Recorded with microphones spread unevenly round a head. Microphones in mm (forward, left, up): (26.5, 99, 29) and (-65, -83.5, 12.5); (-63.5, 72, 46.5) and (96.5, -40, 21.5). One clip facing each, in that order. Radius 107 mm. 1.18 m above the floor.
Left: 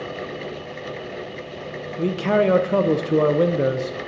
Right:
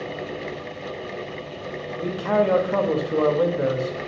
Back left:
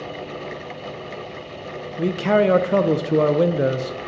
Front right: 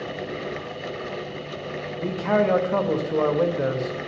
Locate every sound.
2.0 s a man speaking: 105° left, 0.5 m